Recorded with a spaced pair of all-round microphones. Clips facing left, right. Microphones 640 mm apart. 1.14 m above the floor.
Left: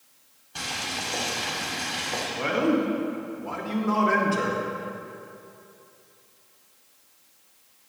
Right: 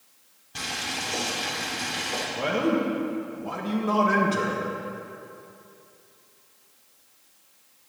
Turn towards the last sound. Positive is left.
turn(degrees=-60)  # may be behind; listen again after turning